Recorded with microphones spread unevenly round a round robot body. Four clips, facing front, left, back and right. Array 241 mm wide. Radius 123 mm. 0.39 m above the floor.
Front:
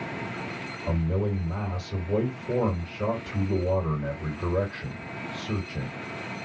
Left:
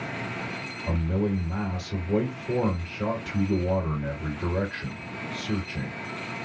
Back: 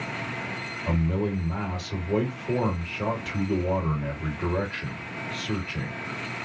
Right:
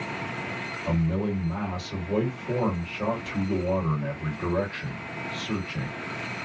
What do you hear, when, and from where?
0.9 s a man speaking: 170° right, 1.7 m